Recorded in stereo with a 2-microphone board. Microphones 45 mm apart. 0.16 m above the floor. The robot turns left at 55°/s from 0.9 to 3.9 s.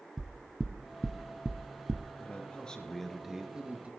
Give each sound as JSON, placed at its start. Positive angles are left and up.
{"t": 0.2, "sound": "knocking", "side_deg": 0, "distance_m": 0.8}
{"t": 2.2, "sound": "a man speaking", "azimuth_deg": 50, "distance_m": 2.5}